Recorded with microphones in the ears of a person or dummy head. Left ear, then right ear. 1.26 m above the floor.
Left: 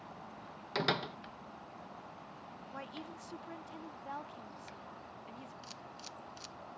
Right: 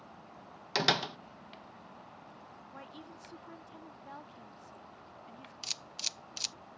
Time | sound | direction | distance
0.8 | a door slam | 30° right (ahead or behind) | ?
2.7 | a woman speaking | 15° left (ahead or behind) | ?
5.6 | a camera shutter | 60° right (ahead or behind) | ?